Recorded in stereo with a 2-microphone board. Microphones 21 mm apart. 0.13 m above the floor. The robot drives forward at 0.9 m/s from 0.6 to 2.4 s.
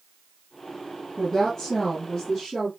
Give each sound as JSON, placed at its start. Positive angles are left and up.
{"t": 1.2, "sound": "a woman speaking", "side_deg": 10, "distance_m": 1.7}